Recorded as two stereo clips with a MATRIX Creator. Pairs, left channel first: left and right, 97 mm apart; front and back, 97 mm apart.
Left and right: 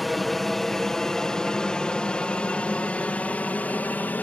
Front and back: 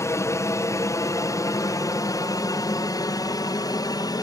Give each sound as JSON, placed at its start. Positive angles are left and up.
{"t": 0.0, "sound": "an aircraft", "azimuth_deg": 5}